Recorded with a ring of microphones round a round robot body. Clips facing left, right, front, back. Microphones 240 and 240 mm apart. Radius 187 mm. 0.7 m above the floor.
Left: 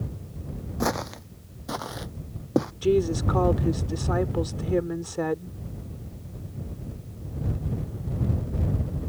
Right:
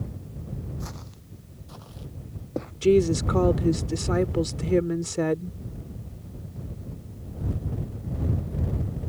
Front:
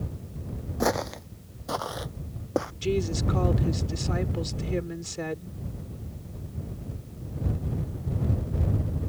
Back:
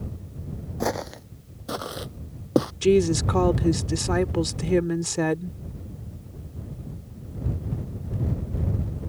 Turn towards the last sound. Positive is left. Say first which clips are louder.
# right 6 dB, back 10 dB
turn(degrees=-155)